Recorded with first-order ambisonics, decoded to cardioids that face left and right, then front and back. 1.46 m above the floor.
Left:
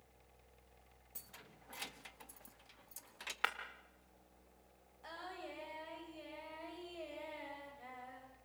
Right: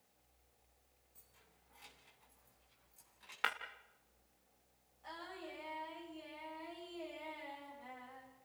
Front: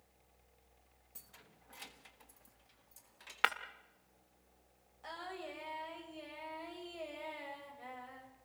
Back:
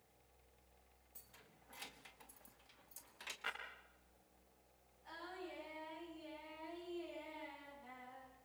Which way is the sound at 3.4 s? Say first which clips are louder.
Right 1 dB, front 13 dB; 5° left.